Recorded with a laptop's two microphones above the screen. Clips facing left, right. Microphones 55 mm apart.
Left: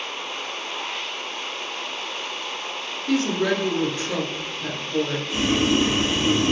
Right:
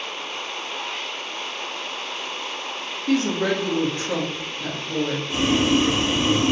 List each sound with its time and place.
3.1 s a woman speaking: 50° right (ahead or behind), 0.9 m
5.3 s boiling: 45° right (ahead or behind), 1.7 m